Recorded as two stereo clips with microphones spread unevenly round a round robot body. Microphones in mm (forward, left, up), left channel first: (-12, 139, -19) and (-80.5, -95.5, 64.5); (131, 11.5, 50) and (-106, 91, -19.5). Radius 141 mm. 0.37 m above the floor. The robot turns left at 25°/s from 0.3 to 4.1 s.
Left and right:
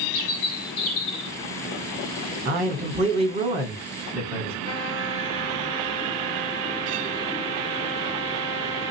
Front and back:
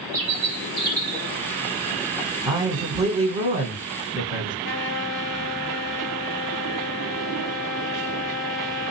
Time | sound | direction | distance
0.1 | a bird | 105° left | 2.5 m
2.5 | a man speaking | 170° right | 1.2 m
4.6 | a trumpet | 5° left | 2.5 m